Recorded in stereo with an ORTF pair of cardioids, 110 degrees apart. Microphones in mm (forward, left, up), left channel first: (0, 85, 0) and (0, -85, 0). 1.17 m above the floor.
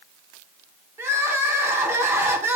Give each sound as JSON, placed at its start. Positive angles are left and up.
{"t": 1.0, "sound": "crying", "azimuth_deg": -15, "distance_m": 0.7}